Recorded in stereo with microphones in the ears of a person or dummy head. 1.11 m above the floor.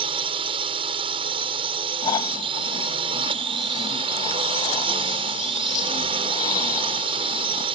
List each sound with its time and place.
0.0 s a drone: 25° right (ahead or behind)
2.0 s snoring: 25° left (ahead or behind)